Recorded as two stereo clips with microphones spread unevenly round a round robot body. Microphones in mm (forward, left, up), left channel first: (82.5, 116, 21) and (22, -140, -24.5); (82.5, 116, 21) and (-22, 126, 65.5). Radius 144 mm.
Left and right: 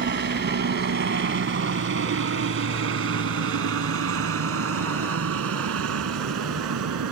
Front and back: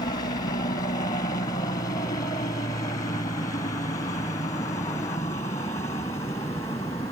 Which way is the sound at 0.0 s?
50° right.